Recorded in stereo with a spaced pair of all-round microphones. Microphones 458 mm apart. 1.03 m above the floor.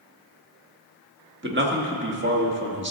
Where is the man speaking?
25° right (ahead or behind), 1.3 m.